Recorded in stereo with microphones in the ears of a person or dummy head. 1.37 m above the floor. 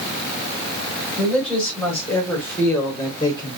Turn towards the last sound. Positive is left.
turn(degrees=20)  # may be behind; listen again after turning